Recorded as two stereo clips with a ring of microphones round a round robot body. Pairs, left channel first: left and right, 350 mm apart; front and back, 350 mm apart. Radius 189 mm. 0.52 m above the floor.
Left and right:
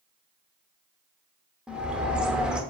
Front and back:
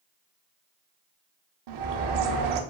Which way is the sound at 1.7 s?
175° right.